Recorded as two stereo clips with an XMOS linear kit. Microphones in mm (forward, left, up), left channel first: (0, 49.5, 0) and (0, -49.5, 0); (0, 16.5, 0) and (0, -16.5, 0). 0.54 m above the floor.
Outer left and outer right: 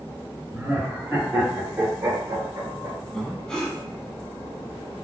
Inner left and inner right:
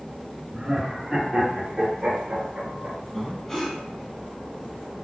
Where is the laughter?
Centre (ahead or behind), 1.1 m; by 3.0 s 35° right (ahead or behind), 2 m.